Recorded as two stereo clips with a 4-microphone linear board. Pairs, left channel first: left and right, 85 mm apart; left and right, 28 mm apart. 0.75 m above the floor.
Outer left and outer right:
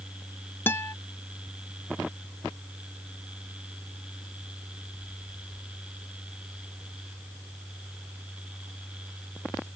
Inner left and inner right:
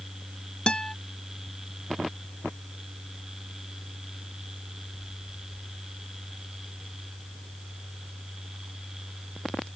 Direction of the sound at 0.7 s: 25° left (ahead or behind).